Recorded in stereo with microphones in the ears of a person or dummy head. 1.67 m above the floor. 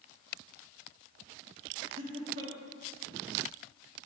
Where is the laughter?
55° right (ahead or behind), 6 m.